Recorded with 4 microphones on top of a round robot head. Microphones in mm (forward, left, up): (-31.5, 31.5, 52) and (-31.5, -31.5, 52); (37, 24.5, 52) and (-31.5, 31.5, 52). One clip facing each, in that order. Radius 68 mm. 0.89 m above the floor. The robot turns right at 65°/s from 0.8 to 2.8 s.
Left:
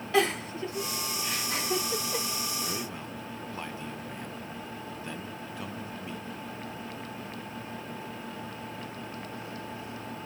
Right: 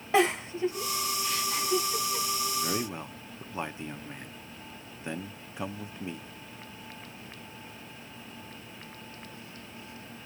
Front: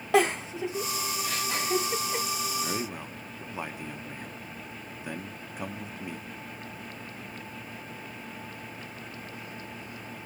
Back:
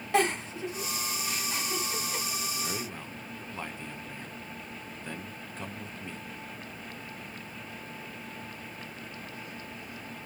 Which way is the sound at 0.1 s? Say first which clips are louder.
Right 1 dB, front 3 dB; 15° right.